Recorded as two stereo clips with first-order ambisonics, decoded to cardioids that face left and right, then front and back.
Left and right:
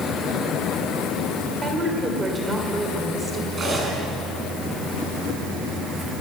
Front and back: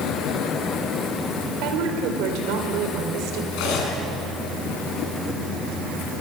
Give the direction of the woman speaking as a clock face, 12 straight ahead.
5 o'clock.